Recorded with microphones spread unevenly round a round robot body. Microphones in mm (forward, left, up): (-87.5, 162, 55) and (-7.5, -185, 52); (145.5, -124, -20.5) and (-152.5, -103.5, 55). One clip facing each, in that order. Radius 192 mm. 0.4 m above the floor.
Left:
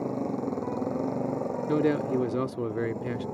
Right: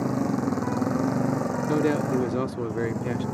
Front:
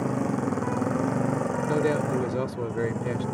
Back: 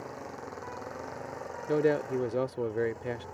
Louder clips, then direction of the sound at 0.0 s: Right 5 dB, front 16 dB; 20° right.